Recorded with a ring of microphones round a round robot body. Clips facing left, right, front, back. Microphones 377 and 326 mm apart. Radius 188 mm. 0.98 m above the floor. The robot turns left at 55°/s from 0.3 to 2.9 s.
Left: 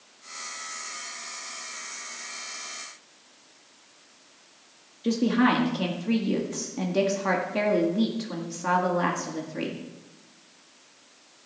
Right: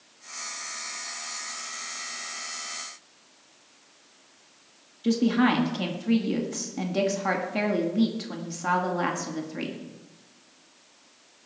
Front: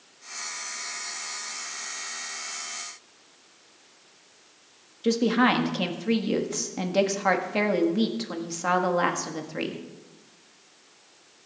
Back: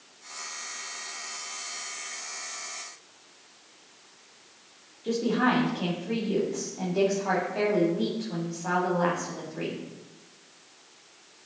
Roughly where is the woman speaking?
Ahead.